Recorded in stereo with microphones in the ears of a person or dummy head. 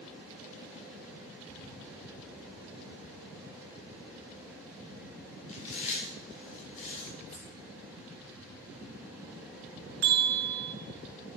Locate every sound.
5.5 s chewing: 40° left (ahead or behind), 2.5 m
7.3 s keys jangling: 5° left (ahead or behind), 2.5 m
10.0 s a bell: 55° right (ahead or behind), 0.8 m